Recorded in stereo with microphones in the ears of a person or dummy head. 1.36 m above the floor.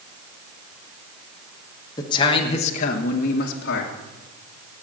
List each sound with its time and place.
2.0 s a man speaking: 25° left (ahead or behind), 1.3 m; by 3.9 s 60° left (ahead or behind), 1.6 m